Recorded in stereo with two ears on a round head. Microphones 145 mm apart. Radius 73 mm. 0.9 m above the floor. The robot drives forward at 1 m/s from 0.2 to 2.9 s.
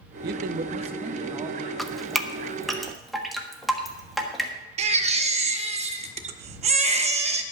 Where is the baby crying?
40° right (ahead or behind), 0.8 m.